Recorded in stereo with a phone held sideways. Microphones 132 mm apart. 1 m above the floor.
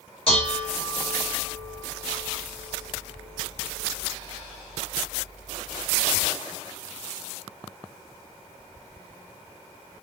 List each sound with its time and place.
0.3 s dishes clattering: 45° left (ahead or behind), 1.1 m